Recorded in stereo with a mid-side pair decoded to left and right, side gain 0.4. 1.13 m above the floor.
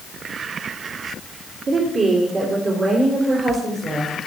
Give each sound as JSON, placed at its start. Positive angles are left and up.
{"t": 1.7, "sound": "a woman speaking", "azimuth_deg": -65, "distance_m": 2.5}